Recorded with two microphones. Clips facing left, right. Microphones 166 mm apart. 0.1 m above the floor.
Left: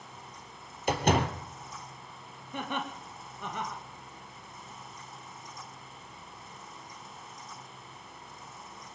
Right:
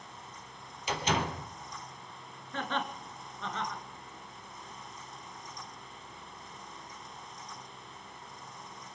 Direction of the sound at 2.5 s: 15° left (ahead or behind).